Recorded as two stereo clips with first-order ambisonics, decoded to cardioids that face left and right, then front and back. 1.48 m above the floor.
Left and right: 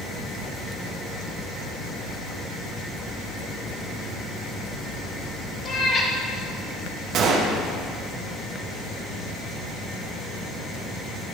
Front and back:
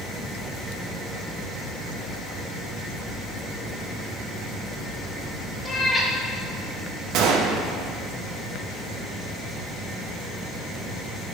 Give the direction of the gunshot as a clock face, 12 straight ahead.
5 o'clock.